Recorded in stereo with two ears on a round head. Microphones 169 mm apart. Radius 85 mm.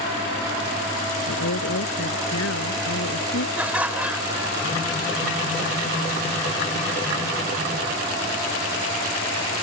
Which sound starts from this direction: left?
A woman speaking, at 1.3 s.